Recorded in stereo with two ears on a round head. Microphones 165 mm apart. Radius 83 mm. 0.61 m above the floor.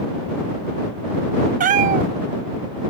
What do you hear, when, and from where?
1.6 s a cat meowing: 45° right (ahead or behind)